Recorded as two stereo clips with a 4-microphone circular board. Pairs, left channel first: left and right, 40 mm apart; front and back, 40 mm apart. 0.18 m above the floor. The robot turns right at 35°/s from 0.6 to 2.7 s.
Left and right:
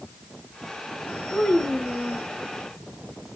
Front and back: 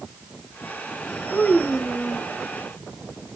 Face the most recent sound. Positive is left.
turn(degrees=70)